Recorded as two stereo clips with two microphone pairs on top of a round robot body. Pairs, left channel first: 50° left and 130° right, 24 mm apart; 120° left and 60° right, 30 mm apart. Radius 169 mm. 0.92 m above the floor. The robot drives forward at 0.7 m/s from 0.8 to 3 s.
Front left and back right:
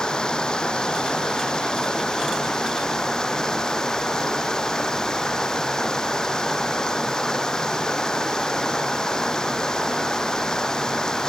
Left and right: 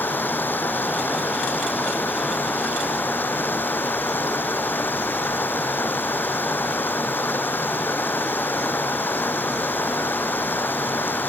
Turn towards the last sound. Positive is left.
turn(degrees=115)